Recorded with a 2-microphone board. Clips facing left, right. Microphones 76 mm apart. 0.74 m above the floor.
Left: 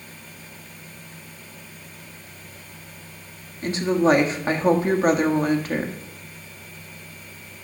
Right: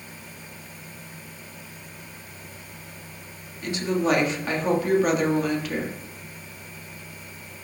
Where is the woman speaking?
35° left (ahead or behind), 1.3 m.